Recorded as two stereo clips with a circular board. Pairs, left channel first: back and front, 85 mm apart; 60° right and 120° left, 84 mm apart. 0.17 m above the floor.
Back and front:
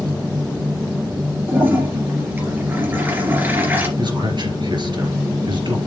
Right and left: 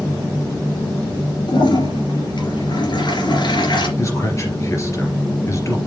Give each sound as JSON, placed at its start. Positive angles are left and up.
{"t": 1.5, "sound": "a toilet flushing", "azimuth_deg": -65, "distance_m": 2.5}
{"t": 4.0, "sound": "a man speaking", "azimuth_deg": -10, "distance_m": 3.0}